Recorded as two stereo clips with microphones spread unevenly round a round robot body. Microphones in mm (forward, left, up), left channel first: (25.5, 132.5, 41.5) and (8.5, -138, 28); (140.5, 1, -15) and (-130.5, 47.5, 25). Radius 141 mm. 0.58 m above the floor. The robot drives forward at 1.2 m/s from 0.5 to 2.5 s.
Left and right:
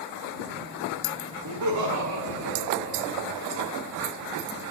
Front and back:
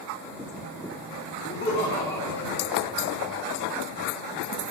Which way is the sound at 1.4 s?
75° right.